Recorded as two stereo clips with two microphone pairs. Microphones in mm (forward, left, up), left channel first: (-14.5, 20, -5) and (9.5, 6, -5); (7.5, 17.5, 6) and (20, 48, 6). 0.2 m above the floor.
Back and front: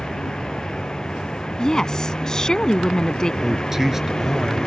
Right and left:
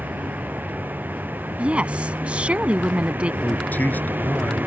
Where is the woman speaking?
95° left.